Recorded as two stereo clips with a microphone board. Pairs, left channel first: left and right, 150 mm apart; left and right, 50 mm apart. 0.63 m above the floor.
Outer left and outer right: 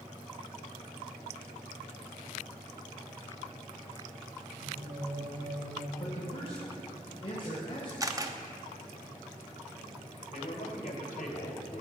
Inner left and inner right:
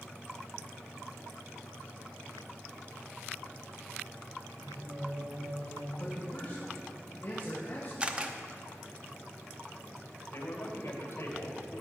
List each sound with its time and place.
4.6 s singing: 70° right (ahead or behind), 2.5 m
6.0 s a man speaking: 35° left (ahead or behind), 2.5 m
8.0 s a camera shutter: 20° right (ahead or behind), 0.8 m
10.3 s a man speaking: 60° left (ahead or behind), 3 m